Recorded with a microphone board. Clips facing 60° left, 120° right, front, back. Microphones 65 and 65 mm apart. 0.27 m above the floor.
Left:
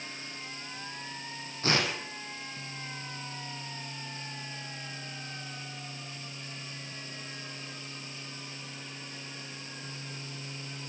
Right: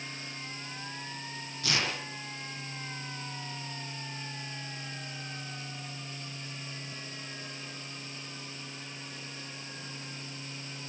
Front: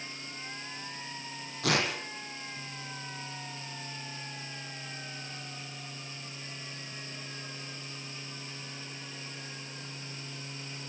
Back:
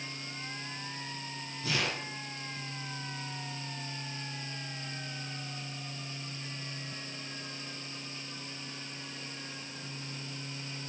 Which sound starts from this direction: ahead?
Tearing paper, at 1.6 s.